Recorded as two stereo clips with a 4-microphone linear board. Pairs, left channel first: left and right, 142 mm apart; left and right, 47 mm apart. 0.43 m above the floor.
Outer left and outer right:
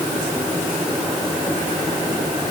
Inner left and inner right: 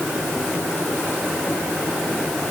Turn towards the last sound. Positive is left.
No sound to turn to.